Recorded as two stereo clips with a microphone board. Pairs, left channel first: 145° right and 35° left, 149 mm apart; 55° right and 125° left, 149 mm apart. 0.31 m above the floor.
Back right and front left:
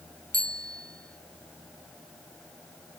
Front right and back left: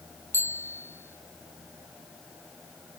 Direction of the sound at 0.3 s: 20° left.